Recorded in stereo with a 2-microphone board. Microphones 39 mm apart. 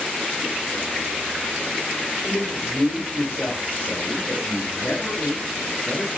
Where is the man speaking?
65° left (ahead or behind), 3 m; by 6.1 s 75° left (ahead or behind), 7.5 m.